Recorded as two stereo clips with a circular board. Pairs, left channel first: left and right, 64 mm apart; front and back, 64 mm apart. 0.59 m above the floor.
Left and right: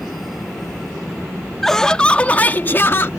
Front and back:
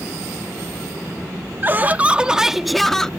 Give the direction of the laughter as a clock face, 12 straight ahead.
6 o'clock.